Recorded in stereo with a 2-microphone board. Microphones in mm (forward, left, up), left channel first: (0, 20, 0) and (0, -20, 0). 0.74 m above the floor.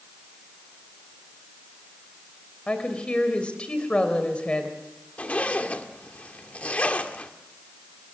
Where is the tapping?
I don't hear tapping.